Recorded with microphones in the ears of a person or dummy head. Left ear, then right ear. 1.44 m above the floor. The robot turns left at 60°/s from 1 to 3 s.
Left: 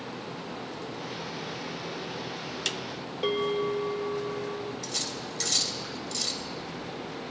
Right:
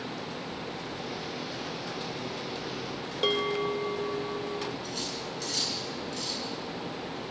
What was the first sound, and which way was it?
A bell, 15° right (ahead or behind).